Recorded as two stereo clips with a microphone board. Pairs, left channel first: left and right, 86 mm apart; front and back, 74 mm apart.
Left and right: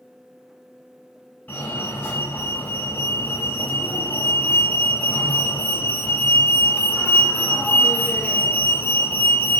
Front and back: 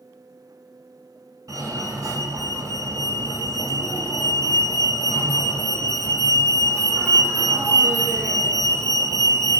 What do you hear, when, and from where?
1.5 s a fire alarm: 150° left, 4 m